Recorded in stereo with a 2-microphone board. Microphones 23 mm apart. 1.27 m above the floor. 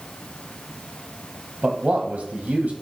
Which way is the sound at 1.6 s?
75° right (ahead or behind).